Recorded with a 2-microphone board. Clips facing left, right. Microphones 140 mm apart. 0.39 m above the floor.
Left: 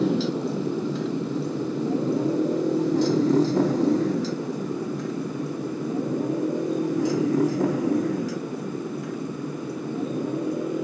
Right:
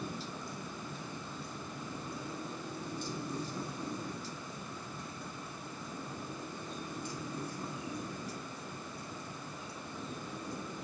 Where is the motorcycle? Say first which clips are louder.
Left 19 dB; 80° left; by 10.8 s 90° left.